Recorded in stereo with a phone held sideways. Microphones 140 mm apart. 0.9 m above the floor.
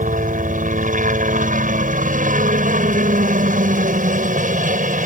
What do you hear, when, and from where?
0.0 s a helicopter: 65° right (ahead or behind)